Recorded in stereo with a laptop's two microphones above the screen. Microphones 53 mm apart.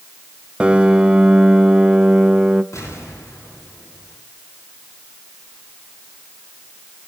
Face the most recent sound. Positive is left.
turn(degrees=70)  # may be behind; listen again after turning